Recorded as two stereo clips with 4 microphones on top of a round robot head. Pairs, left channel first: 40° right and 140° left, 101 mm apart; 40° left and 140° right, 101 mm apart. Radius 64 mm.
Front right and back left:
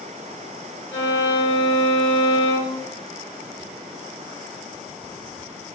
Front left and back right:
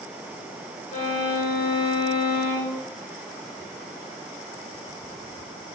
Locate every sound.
0.9 s a violin: 25° left, 1.2 m